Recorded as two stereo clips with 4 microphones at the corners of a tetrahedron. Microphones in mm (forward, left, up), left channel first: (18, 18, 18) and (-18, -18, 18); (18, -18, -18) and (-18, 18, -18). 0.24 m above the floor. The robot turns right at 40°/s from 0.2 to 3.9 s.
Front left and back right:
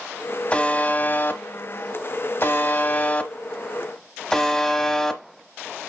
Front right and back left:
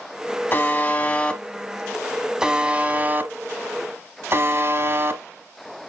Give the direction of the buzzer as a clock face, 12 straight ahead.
12 o'clock.